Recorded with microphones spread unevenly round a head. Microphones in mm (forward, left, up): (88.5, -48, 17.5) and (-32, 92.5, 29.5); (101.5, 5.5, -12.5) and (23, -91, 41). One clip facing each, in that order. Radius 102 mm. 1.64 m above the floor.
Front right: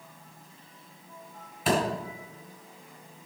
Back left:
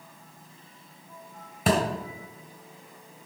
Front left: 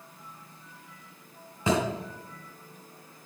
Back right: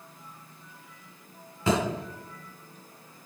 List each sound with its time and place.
1.7 s a thud: 145° left, 2 m